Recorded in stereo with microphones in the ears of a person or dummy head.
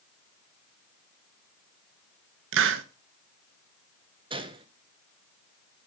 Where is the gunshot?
25° right (ahead or behind), 0.7 m.